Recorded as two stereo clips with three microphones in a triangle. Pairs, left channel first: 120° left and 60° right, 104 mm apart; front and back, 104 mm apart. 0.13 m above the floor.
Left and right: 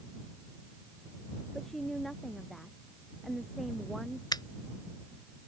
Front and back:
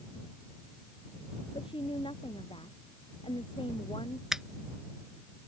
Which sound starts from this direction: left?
A finger snap, at 4.3 s.